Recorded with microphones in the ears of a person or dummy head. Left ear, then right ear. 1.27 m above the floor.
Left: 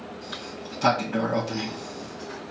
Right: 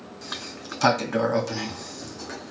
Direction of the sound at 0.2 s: 45° right (ahead or behind).